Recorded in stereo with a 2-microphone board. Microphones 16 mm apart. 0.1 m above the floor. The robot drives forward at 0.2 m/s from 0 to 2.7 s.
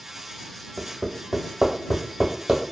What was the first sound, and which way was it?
Hammering, 50° right (ahead or behind).